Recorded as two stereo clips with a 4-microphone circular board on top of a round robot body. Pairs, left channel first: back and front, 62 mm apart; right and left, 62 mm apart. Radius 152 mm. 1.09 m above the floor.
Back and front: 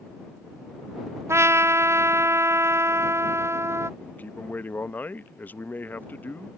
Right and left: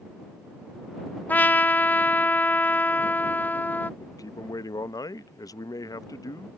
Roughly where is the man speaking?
Behind right.